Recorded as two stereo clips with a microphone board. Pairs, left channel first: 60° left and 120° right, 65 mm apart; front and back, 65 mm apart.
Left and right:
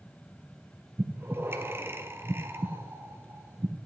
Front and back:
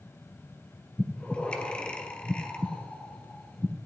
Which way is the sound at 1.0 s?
70° right.